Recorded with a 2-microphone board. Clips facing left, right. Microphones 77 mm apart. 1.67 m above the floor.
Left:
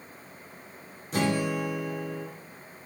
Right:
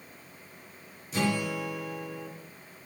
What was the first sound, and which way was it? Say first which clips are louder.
A guitar: left 3 dB; 55° left (ahead or behind).